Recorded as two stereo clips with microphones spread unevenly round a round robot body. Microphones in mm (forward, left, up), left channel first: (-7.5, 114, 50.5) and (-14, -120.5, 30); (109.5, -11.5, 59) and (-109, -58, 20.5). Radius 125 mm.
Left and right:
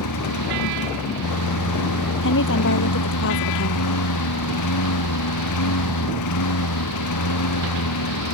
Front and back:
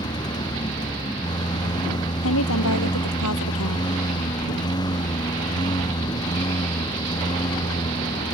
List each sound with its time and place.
0.0 s a lawn mower: 85° left
2.2 s a woman speaking: 45° left